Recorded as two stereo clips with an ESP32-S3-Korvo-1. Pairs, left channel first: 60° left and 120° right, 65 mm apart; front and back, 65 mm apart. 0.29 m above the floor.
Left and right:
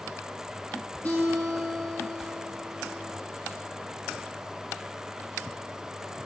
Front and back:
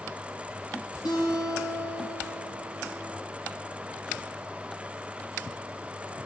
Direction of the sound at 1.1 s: 5° right.